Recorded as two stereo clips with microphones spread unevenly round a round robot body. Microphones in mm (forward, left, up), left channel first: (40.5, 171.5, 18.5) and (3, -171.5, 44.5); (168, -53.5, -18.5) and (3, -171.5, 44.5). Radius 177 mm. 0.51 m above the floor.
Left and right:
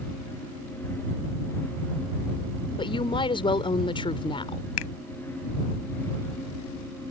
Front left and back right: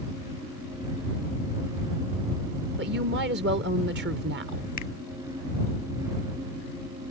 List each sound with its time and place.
2.8 s a woman speaking: 155° left
4.8 s a finger snap: 90° left